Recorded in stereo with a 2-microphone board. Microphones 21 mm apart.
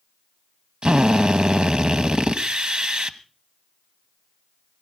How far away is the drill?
About 0.9 m.